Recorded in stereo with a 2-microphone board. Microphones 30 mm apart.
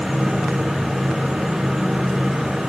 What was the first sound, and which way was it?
Only background noise.